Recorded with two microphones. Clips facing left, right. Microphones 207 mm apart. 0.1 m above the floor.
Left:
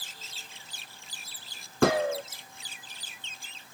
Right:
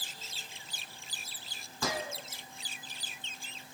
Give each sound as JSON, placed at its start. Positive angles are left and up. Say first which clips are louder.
{"t": 1.8, "sound": "a gunshot", "louder": "left 13 dB", "side_deg": 65, "distance_m": 0.7}